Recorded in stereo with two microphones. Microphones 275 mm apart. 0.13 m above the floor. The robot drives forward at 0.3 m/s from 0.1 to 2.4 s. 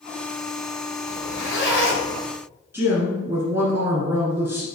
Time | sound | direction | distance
1.1 | a zipper | 40° left (ahead or behind) | 1.5 m
2.7 | a woman speaking | 10° right (ahead or behind) | 1.4 m